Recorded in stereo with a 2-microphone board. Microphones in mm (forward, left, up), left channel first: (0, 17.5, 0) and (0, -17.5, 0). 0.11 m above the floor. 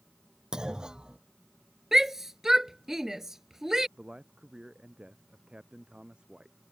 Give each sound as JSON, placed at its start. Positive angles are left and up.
{"t": 0.5, "sound": "a clunk", "side_deg": -20}
{"t": 1.9, "sound": "a shout", "side_deg": -15}
{"t": 4.0, "sound": "a man speaking", "side_deg": -30}